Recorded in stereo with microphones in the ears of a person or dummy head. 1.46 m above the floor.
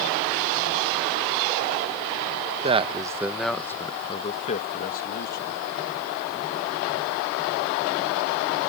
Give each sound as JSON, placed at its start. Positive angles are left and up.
{"t": 2.6, "sound": "a man speaking", "side_deg": -30}